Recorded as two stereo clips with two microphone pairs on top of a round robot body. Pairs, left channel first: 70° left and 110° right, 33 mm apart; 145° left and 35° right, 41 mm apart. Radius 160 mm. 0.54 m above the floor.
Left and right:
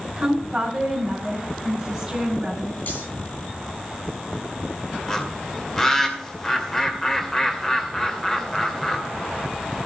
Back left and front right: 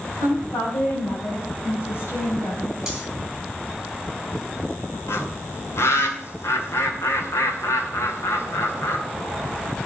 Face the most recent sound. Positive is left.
turn(degrees=145)